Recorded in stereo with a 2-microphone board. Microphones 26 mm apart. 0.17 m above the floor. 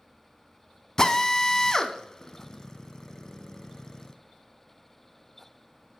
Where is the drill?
25° left (ahead or behind), 0.5 m.